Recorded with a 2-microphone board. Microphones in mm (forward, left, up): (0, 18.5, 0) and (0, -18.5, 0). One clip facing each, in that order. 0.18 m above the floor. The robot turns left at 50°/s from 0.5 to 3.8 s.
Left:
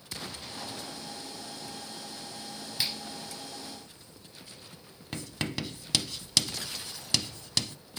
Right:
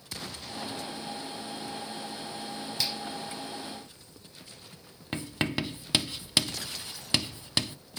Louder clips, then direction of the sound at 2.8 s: Even; 25° left (ahead or behind).